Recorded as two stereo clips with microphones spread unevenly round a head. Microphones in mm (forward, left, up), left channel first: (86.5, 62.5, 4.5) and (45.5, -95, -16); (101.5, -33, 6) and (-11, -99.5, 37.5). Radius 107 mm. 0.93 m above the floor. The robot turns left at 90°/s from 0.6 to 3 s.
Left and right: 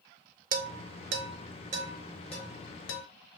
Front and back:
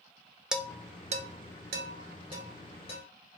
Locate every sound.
0.5 s dishes clattering: 65° right, 0.5 m; by 3.0 s 80° left, 0.5 m